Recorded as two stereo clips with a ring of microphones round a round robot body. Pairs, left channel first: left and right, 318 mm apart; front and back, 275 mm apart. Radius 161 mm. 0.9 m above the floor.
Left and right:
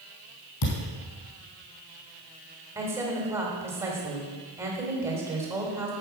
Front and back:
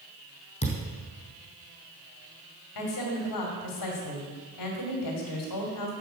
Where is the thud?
65° left, 4 m.